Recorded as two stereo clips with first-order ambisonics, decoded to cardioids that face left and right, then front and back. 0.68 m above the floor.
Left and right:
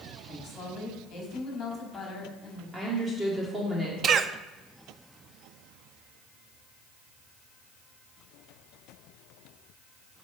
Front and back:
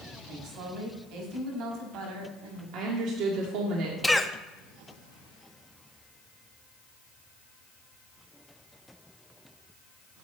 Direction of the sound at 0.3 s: 150° left.